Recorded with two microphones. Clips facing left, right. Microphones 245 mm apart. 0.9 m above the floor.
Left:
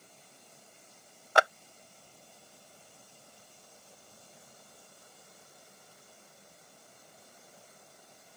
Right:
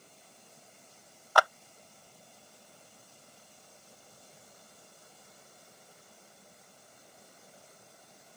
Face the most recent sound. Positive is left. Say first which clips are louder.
# left 1 dB
turn(degrees=25)  # may be behind; listen again after turning